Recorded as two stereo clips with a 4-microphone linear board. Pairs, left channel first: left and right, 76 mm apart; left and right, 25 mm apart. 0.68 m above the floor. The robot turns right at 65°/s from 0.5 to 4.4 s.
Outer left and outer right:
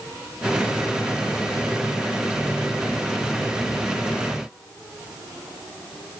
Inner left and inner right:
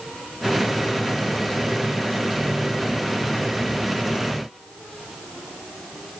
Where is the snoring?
I don't hear snoring.